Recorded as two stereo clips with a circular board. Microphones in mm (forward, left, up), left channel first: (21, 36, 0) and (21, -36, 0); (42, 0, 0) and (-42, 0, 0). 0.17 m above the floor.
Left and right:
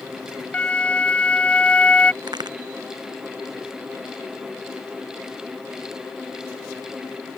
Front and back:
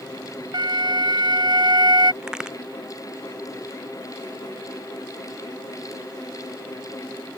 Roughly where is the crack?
Right.